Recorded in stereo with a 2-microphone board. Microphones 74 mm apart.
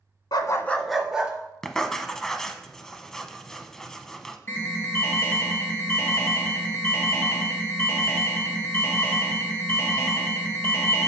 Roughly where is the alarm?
Left.